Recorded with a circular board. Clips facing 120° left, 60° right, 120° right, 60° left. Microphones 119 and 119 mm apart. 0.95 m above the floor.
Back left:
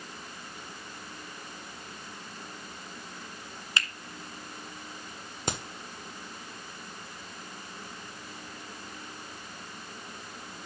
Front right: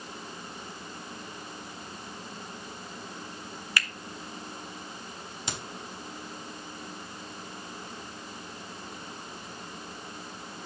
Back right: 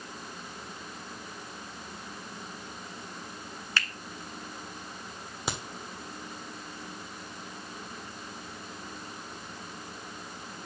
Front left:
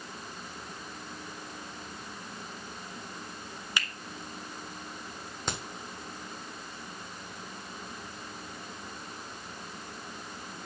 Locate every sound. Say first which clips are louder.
3.8 s a finger snap: front right 1 dB, back right 2 dB; 115° left, 0.7 m
5.5 s a crack: back left 5 dB, back right 1 dB; 155° left, 1.3 m